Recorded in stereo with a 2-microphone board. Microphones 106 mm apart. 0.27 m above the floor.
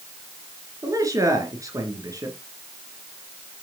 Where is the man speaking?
30° right (ahead or behind), 3 m.